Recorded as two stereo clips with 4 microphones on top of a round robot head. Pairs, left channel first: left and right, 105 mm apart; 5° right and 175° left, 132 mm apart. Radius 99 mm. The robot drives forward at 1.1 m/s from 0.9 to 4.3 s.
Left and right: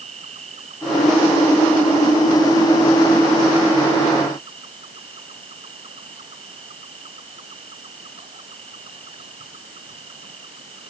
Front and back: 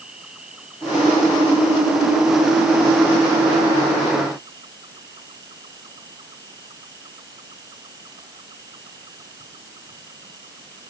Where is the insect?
100° right; by 10.9 s 115° right.